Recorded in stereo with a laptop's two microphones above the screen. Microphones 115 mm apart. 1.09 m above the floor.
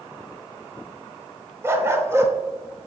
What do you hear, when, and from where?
1.6 s a dog barking: 20° right (ahead or behind), 0.9 m